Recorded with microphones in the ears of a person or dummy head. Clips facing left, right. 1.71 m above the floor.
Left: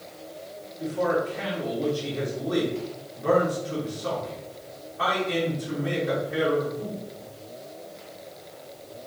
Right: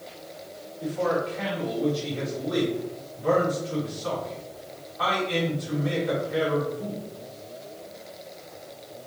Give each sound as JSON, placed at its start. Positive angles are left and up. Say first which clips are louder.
{"t": 0.8, "sound": "a man speaking", "louder": "left 1 dB", "side_deg": 40, "distance_m": 2.5}